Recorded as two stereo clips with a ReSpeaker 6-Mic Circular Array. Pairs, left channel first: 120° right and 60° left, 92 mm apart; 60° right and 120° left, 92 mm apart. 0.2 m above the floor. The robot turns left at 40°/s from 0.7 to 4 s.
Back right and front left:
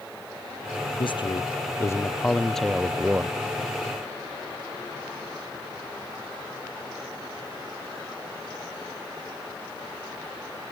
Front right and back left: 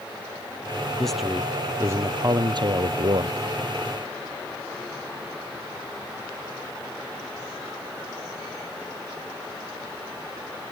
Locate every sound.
1.0 s a man speaking: 145° right; by 3.4 s 120° left